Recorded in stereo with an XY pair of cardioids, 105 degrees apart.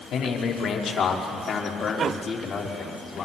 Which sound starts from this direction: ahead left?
A man speaking, at 0.1 s.